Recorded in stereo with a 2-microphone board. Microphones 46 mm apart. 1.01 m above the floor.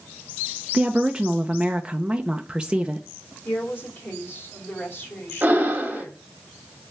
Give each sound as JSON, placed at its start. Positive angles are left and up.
{"t": 0.7, "sound": "a woman speaking", "side_deg": -20, "distance_m": 0.6}
{"t": 3.5, "sound": "a woman speaking", "side_deg": 55, "distance_m": 3.5}
{"t": 5.4, "sound": "breathing", "side_deg": -35, "distance_m": 1.9}